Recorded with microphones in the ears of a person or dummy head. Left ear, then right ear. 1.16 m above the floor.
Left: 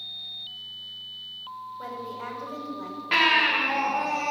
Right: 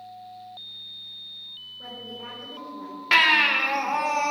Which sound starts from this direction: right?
A baby crying, at 3.1 s.